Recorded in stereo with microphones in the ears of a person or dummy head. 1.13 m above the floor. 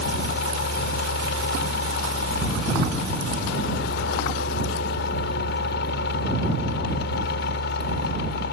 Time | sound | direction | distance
0.0 | a fan | 55° left (ahead or behind) | ?